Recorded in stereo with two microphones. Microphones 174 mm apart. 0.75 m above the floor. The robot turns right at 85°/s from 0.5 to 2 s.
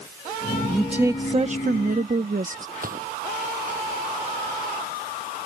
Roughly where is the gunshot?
Right.